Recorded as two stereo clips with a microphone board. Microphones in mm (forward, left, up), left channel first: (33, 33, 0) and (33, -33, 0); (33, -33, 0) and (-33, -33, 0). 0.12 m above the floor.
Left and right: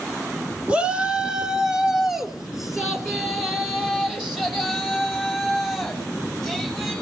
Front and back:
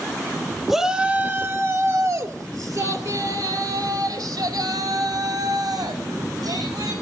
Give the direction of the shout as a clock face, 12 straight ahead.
3 o'clock.